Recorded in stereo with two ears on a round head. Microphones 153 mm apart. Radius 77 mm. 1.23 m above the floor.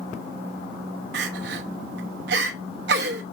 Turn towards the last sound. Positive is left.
turn(degrees=-65)  # may be behind; listen again after turning